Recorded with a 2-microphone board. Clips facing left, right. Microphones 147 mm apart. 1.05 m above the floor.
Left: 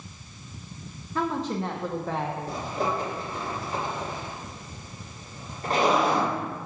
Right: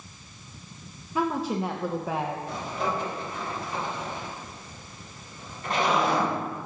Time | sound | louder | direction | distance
1.1 | a woman speaking | right 1 dB | 10° right (ahead or behind) | 0.6 m
2.5 | a zipper | left 1 dB | 40° left (ahead or behind) | 3.5 m